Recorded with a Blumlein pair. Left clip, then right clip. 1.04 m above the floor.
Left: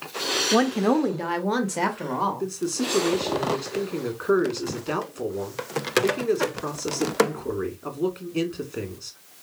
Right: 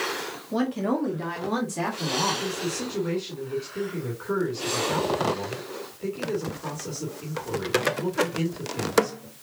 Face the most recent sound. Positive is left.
turn(degrees=35)